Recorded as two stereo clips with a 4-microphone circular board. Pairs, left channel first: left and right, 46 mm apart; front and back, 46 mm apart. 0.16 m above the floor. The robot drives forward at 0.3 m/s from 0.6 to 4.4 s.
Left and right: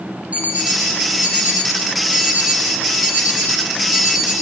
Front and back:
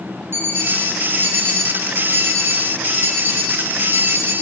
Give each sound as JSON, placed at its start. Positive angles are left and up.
{"t": 0.3, "sound": "an alarm clock", "azimuth_deg": -150, "distance_m": 2.5}